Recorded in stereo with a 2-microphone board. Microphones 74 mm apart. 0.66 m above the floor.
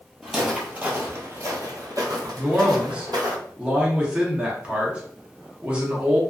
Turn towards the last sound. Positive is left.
turn(degrees=-15)  # may be behind; listen again after turning